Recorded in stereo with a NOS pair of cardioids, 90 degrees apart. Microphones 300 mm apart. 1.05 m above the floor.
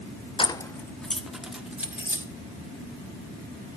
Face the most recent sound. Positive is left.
turn(degrees=-5)